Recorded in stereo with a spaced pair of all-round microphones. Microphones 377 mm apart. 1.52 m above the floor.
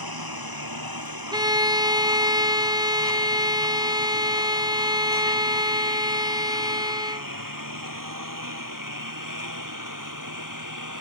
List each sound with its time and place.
0.0 s a lawn mower: 70° right (ahead or behind); by 11.0 s 55° right (ahead or behind)
1.3 s a violin: 10° right (ahead or behind)